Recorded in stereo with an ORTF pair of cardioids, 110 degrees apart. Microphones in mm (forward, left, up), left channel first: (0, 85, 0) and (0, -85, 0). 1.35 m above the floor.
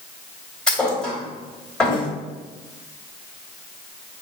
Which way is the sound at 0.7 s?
5° left.